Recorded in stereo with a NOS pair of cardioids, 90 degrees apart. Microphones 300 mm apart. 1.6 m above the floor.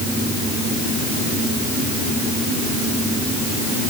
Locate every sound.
Only background noise.